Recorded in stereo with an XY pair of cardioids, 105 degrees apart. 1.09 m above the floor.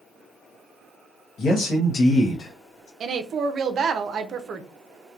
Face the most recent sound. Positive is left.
turn(degrees=-55)